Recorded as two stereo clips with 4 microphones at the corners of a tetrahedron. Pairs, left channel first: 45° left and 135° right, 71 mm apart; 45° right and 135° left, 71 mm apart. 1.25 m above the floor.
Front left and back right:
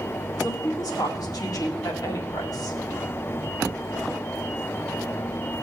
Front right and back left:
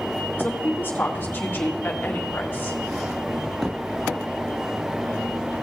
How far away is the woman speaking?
About 2 m.